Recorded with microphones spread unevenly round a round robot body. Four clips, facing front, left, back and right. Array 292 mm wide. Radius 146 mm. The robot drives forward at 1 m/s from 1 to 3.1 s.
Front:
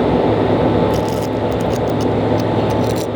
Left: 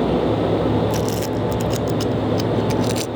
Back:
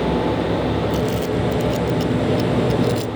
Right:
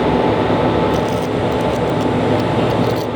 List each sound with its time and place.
0.9 s crumpling: 50° left; by 3.1 s 60° left